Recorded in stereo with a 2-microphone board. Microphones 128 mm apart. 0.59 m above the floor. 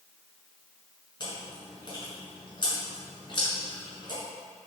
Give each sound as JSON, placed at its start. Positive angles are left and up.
{"t": 1.2, "sound": "chewing", "side_deg": 35, "distance_m": 1.8}